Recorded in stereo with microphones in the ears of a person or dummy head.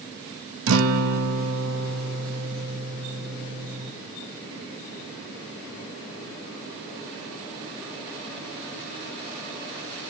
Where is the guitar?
85° right, 1.2 m.